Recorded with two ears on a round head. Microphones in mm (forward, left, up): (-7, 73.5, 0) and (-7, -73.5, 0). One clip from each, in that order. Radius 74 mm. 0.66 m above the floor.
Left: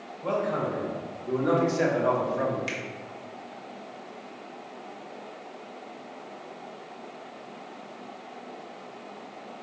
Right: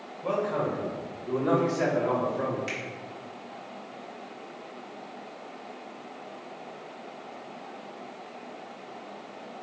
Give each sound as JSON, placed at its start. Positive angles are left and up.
{"t": 0.2, "sound": "a man speaking", "side_deg": 5, "distance_m": 2.0}
{"t": 2.7, "sound": "a finger snap", "side_deg": 20, "distance_m": 0.9}